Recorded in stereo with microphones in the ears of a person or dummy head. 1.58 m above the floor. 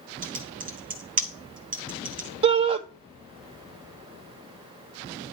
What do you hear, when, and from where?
0.2 s typing on a keyboard: 40° right (ahead or behind), 1.0 m
2.4 s a shout: 30° right (ahead or behind), 0.8 m